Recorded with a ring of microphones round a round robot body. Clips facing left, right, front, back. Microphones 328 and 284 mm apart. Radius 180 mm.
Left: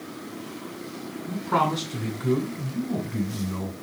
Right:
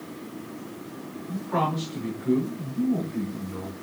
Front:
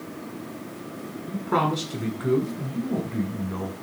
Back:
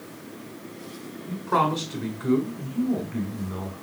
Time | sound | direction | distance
1.3 | a man speaking | 65° left | 5.5 m